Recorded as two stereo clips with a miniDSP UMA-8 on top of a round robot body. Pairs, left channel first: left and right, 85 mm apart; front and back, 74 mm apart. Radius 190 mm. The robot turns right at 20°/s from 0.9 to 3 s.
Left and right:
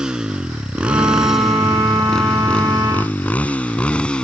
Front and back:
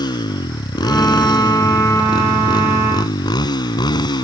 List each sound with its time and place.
0.0 s a motorcycle: 10° right; by 4.2 s 10° left